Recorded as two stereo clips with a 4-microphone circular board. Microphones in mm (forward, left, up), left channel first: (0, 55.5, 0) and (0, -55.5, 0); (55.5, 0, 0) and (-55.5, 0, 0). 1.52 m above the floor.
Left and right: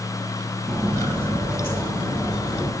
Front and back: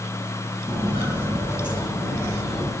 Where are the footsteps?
Straight behind, 1.6 m; by 2.7 s 85° left, 1.9 m.